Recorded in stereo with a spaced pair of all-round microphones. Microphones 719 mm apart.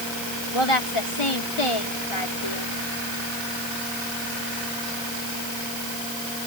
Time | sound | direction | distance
0.5 | a woman speaking | 40° left (ahead or behind) | ?